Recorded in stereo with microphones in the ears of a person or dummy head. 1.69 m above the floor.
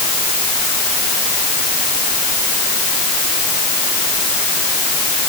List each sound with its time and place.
Only background noise.